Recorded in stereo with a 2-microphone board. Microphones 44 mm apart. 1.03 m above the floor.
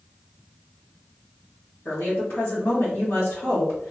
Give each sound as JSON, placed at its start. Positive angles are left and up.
{"t": 1.9, "sound": "a woman speaking", "side_deg": 60, "distance_m": 1.4}